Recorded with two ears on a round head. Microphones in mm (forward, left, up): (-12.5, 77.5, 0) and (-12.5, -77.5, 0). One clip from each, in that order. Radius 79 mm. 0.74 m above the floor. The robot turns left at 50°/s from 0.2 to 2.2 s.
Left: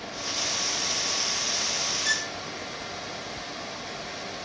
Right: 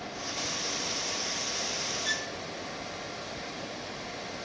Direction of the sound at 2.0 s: 40° left (ahead or behind).